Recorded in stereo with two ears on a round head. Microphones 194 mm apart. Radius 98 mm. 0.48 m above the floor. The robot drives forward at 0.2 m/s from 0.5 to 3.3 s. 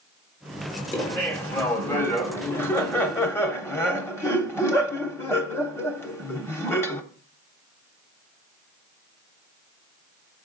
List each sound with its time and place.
0.9 s laughter: 10° left (ahead or behind), 1.0 m